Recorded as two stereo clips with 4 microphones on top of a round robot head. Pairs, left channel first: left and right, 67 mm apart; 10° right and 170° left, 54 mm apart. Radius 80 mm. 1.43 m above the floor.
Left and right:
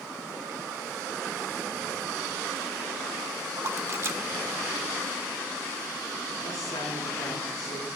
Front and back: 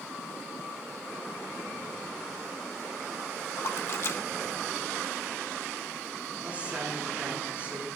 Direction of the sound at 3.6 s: 45° right.